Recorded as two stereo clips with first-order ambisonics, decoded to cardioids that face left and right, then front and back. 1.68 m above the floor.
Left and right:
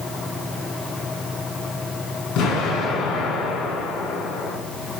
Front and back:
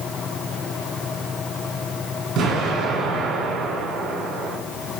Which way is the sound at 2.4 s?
135° left.